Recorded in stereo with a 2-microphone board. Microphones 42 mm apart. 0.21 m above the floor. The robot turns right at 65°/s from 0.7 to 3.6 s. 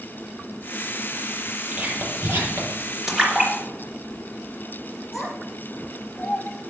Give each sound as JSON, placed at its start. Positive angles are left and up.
{"t": 1.7, "sound": "whispering", "side_deg": -35, "distance_m": 5.0}
{"t": 3.1, "sound": "a splash", "side_deg": -10, "distance_m": 3.0}
{"t": 5.1, "sound": "a child speaking", "side_deg": 5, "distance_m": 3.5}